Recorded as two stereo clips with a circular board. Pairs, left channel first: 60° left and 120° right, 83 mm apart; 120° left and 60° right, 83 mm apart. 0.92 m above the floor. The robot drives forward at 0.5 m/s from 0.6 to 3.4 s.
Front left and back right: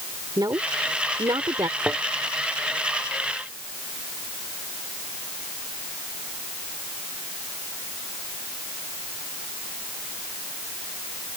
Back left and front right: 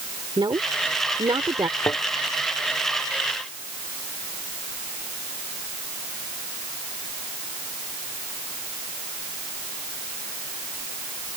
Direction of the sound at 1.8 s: 170° left.